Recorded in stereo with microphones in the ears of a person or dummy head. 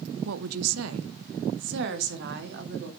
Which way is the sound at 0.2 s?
80° right.